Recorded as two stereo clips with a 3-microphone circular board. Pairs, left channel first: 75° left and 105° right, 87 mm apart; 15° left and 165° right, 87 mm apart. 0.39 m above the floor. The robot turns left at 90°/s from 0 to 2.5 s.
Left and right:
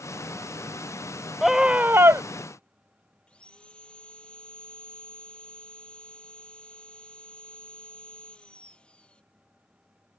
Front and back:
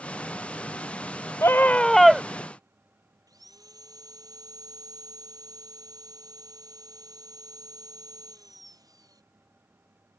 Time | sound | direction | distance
1.4 | a scream | 15° right | ?
3.3 | sawing | 150° left | ?